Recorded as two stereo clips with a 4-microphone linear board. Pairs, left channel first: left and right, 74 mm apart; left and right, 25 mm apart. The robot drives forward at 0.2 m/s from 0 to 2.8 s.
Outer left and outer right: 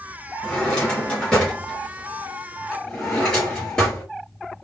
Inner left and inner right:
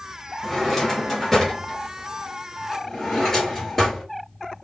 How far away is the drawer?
About 1.2 m.